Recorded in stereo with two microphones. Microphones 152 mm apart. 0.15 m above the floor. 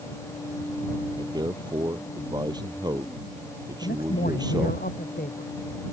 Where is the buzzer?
No buzzer in this recording.